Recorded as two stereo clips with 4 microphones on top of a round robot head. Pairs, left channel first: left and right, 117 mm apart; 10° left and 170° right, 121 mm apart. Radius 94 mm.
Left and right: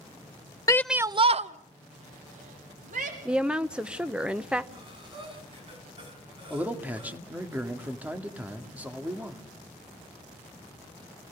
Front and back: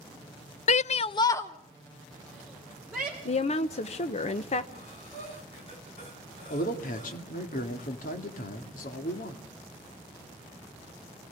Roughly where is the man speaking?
Ahead.